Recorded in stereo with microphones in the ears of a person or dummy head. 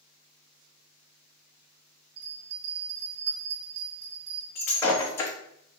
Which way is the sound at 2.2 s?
70° right (ahead or behind).